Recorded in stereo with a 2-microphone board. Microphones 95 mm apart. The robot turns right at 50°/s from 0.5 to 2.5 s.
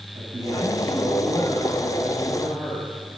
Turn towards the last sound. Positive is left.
turn(degrees=-20)